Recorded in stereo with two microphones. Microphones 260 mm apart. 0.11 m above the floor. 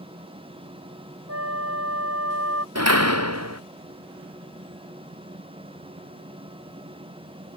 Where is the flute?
70° right (ahead or behind).